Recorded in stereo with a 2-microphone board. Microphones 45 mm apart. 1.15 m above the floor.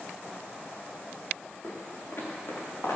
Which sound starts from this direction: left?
Footsteps, at 1.6 s.